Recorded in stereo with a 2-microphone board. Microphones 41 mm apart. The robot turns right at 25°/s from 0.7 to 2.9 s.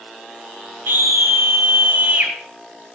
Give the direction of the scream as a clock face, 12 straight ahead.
3 o'clock.